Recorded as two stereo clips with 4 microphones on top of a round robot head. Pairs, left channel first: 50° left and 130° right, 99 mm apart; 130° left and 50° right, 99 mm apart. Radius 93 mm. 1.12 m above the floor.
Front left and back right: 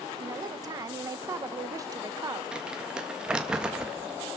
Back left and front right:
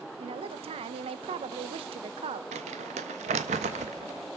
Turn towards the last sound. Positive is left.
turn(degrees=-50)